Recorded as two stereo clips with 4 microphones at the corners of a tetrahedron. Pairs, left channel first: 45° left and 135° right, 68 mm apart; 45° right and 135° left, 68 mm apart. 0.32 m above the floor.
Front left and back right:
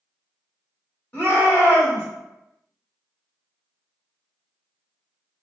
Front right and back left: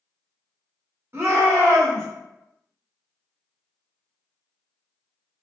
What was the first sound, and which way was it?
A shout, 105° left.